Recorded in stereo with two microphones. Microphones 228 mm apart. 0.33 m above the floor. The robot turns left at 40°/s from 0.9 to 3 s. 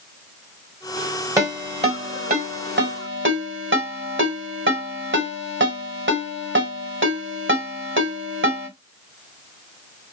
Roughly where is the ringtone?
Centre.